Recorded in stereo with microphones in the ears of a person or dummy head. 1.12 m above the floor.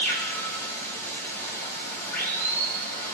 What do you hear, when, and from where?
0.0 s running water: 15° left (ahead or behind), 1.9 m